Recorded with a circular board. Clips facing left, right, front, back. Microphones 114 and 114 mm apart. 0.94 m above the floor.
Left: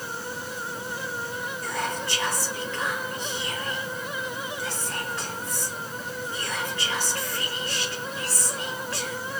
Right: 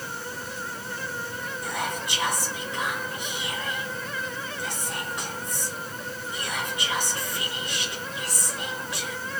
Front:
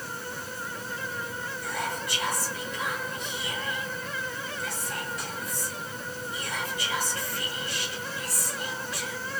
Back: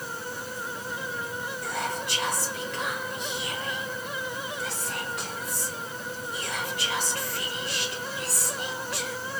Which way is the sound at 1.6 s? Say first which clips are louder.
Left 1 dB, back 1 dB; 165° right.